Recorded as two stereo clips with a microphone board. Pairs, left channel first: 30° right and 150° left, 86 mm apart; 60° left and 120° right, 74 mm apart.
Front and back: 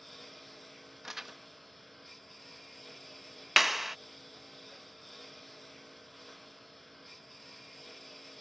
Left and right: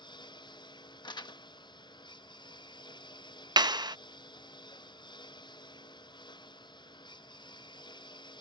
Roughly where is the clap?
Behind right.